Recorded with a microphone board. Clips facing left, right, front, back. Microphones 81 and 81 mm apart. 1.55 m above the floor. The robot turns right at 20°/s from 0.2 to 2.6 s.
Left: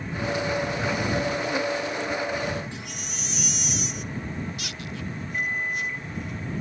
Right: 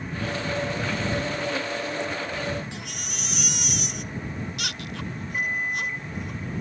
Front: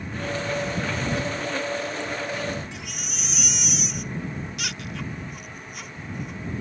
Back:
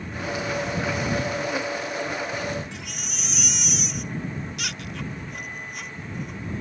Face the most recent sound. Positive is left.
turn(degrees=-170)